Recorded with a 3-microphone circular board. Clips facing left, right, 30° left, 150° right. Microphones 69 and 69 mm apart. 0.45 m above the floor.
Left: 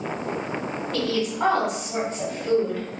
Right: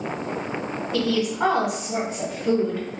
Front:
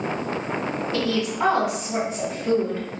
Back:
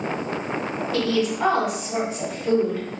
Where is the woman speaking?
20° right, 1.6 m.